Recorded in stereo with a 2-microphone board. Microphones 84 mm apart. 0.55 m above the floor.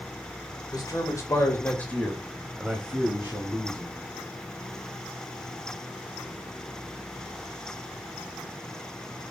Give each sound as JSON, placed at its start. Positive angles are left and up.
{"t": 0.7, "sound": "a man speaking", "side_deg": 50, "distance_m": 1.5}